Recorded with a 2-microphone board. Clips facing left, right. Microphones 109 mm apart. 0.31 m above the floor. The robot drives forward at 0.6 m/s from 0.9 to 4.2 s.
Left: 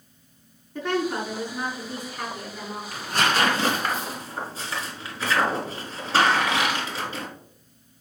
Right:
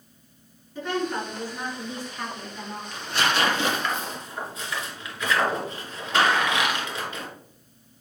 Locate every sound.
0.8 s a woman speaking: 50° left (ahead or behind), 4 m; by 2.8 s 40° left (ahead or behind), 5 m
2.9 s tearing paper: 45° left (ahead or behind), 1.8 m; by 7.3 s 30° left (ahead or behind), 2.5 m